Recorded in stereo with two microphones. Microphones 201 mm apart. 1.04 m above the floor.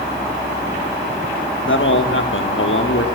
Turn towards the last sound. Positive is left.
turn(degrees=80)